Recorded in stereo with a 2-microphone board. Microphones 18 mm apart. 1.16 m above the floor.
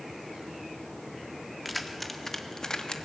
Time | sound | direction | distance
1.6 | keys jangling | centre (ahead or behind) | 1.7 m